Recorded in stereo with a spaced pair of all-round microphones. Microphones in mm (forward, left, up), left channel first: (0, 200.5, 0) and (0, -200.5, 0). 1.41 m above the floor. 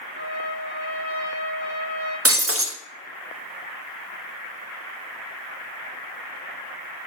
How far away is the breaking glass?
About 0.7 m.